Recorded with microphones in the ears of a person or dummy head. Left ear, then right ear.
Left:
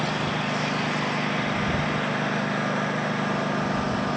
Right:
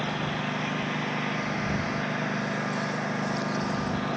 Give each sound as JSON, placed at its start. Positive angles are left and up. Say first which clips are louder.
{"t": 0.0, "sound": "a lawn mower", "louder": "left 4 dB", "side_deg": 5}